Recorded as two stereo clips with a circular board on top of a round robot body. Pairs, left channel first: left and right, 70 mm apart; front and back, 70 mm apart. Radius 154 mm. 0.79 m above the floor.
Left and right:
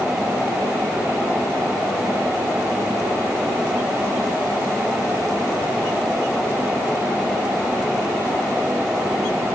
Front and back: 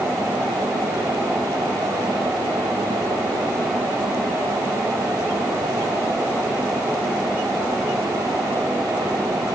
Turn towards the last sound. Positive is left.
No sound to turn to.